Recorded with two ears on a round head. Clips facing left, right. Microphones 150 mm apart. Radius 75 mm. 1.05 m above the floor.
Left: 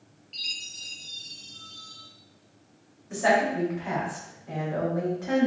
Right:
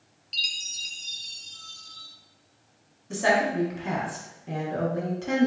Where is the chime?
45° right (ahead or behind), 0.6 m.